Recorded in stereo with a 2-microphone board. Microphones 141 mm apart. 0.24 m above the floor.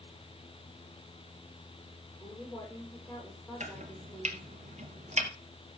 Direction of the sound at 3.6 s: 50° right (ahead or behind).